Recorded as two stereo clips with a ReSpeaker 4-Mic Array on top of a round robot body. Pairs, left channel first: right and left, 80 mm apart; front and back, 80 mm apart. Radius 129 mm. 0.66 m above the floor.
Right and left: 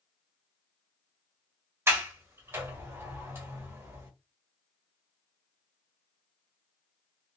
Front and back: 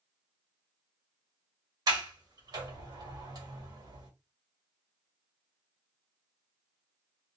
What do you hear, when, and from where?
1.9 s a sliding door: 145° left, 1.7 m